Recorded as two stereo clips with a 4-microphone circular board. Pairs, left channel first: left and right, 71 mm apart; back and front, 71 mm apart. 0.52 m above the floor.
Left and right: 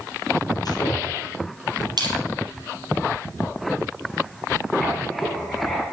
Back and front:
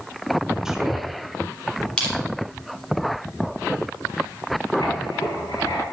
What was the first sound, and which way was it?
A man speaking, 80° left.